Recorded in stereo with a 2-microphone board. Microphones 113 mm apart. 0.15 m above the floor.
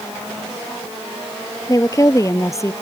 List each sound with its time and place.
1.7 s a woman speaking: 30° left (ahead or behind); by 2.7 s 25° left (ahead or behind)